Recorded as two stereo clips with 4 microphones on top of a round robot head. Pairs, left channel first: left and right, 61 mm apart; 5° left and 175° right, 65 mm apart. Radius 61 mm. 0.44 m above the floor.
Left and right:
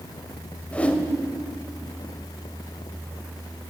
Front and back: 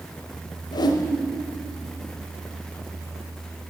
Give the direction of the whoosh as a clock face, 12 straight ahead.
11 o'clock.